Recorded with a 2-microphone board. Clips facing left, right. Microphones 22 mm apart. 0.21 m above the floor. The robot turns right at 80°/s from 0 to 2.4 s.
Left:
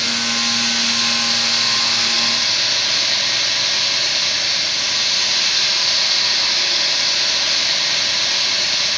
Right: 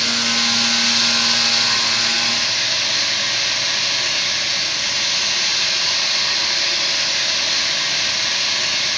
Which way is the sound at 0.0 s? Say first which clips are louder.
Right 1 dB; 140° right.